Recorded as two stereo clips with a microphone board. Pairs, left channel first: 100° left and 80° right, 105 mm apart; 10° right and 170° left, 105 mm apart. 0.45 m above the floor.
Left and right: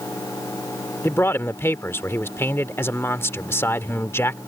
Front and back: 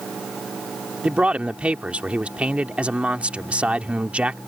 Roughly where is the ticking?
No ticking in this recording.